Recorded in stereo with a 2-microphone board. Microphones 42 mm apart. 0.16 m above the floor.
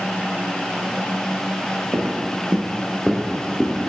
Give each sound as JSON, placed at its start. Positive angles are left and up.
{"t": 1.9, "sound": "footsteps", "side_deg": -70, "distance_m": 0.7}